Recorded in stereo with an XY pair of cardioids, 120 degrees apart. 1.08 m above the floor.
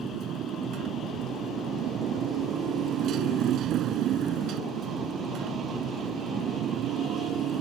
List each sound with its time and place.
0.0 s a motorcycle: 65° right